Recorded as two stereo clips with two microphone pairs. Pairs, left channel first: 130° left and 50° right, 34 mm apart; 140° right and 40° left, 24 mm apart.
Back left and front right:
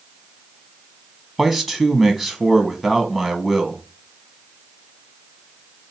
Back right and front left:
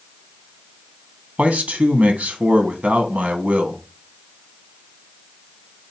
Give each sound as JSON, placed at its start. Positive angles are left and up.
{"t": 1.4, "sound": "a man speaking", "azimuth_deg": 45, "distance_m": 0.8}